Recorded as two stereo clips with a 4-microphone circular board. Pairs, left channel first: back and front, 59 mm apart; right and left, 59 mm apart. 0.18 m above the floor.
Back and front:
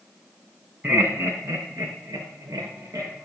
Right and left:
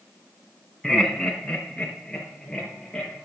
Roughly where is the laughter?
Ahead.